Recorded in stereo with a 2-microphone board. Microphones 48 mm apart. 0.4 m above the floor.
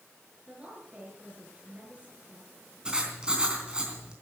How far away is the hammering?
No hammering in this recording.